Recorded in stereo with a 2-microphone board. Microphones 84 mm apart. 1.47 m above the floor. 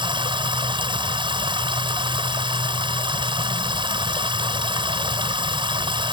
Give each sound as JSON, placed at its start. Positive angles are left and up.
{"t": 0.0, "sound": "running water", "side_deg": -75}